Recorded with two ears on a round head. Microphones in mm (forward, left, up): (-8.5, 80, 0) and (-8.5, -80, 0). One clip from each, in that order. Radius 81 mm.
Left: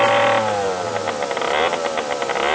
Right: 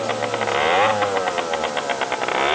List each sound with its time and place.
Only background noise.